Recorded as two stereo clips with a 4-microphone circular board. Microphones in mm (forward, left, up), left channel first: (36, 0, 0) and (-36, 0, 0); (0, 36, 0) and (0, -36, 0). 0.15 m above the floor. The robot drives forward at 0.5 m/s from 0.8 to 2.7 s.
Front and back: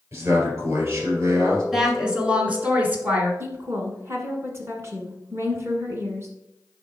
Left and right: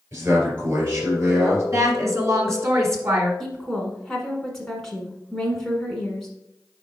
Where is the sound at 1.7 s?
100° right, 1.5 m; by 3.3 s 120° right, 1.7 m.